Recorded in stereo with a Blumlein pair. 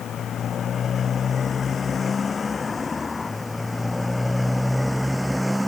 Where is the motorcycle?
30° left; by 5.7 s straight ahead.